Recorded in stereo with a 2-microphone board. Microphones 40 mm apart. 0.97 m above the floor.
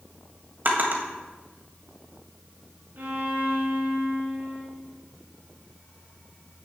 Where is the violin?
55° right (ahead or behind), 3 m.